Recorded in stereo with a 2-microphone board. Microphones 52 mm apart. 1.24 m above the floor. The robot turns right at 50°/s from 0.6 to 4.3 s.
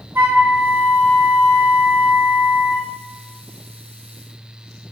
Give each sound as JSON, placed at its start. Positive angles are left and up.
{"t": 0.1, "sound": "a flute", "azimuth_deg": -135, "distance_m": 2.5}